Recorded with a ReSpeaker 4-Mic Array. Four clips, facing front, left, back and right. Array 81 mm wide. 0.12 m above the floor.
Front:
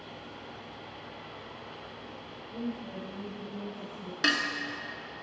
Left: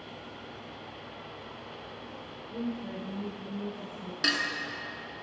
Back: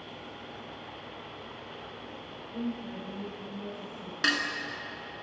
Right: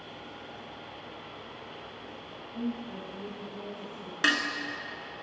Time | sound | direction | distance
2.5 | a woman speaking | 120° left | 2.5 m
4.2 | dishes clattering | 90° right | 0.8 m